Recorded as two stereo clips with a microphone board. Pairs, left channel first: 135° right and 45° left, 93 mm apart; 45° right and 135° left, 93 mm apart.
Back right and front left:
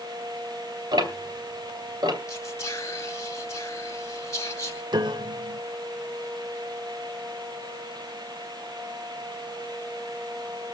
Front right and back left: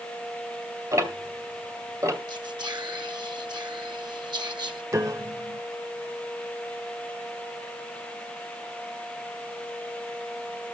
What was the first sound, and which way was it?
Ticking, 80° left.